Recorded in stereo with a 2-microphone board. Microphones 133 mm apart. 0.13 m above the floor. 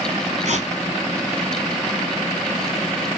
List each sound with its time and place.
0.5 s tearing paper: 55° right (ahead or behind), 1.6 m